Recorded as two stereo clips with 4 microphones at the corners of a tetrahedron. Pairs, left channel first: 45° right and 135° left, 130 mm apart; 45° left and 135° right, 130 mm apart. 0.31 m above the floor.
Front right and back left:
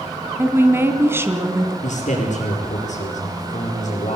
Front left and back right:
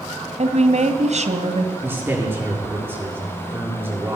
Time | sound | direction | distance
0.4 | a woman speaking | 155° right | 2 m
1.8 | a man speaking | 65° right | 7.5 m